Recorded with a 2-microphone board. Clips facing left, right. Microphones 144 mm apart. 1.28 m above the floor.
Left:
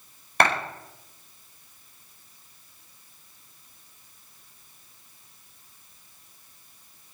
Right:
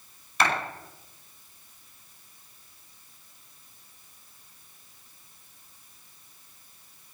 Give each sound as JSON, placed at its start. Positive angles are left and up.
{"t": 0.4, "sound": "a clap", "side_deg": 60, "distance_m": 5.0}